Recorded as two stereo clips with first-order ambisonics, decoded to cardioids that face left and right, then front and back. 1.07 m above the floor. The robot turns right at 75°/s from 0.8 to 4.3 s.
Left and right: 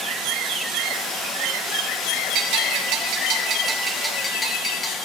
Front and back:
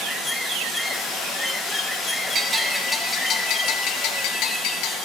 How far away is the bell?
About 1.5 m.